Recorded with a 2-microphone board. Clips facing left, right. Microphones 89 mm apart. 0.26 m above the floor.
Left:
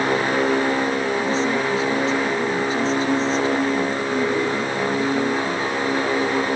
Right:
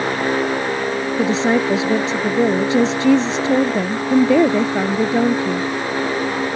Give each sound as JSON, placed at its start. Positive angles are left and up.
{"t": 1.2, "sound": "a woman speaking", "side_deg": -75}